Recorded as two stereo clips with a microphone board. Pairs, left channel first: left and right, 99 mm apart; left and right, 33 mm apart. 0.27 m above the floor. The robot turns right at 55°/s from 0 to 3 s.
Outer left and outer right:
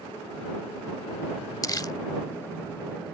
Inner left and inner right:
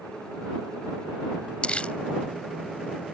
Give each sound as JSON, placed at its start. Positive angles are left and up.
{"t": 1.6, "sound": "crumpling", "side_deg": 40}